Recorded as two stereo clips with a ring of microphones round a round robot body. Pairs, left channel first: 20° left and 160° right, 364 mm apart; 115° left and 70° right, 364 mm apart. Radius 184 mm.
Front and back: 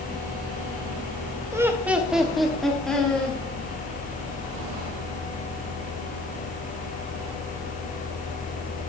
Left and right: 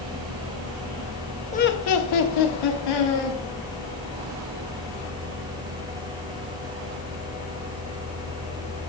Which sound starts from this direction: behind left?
Laughter, at 1.5 s.